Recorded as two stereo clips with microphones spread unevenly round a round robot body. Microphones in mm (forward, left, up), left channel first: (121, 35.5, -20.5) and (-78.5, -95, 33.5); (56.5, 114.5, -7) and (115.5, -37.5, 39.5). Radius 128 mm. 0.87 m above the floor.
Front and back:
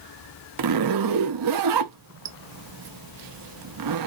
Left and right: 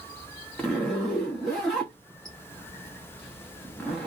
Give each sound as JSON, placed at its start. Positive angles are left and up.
{"t": 0.6, "sound": "a zipper", "azimuth_deg": -165, "distance_m": 0.5}